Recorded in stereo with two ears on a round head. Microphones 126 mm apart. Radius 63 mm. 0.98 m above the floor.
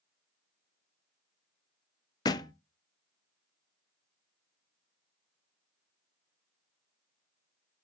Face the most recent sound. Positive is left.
turn(degrees=30)  # may be behind; listen again after turning